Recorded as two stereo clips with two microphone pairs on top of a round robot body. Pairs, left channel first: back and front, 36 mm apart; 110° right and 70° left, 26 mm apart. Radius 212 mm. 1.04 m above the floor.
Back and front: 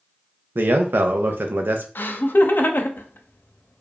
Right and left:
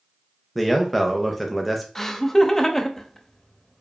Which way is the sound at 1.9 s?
170° left.